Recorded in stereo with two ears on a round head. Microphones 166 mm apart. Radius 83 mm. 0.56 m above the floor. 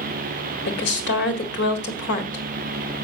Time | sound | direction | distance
0.7 | a woman speaking | 65° left (ahead or behind) | 1.7 m